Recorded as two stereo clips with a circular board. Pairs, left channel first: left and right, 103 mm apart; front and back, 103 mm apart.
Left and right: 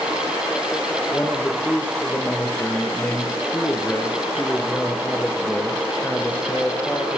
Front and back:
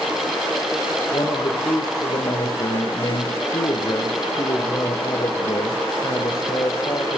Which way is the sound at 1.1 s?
20° left.